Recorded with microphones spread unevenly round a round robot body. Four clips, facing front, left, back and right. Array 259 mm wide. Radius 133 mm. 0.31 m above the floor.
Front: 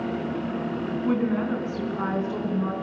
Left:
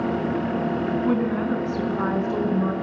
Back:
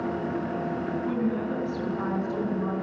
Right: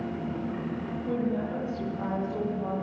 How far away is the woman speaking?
About 4 m.